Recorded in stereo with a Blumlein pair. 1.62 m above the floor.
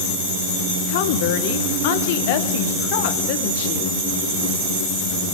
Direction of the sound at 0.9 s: 50° left.